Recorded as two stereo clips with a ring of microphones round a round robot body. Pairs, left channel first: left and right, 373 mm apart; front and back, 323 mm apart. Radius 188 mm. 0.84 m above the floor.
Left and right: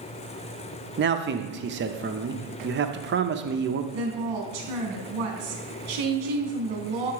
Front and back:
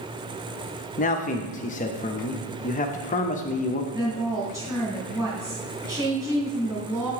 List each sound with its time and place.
1.0 s a man speaking: 50° right, 0.5 m
3.9 s a woman speaking: 100° right, 1.8 m